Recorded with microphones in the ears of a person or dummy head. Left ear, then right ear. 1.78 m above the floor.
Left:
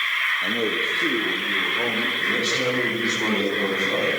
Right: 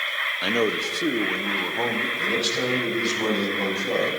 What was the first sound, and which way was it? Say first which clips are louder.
A man speaking: even; 60° right (ahead or behind).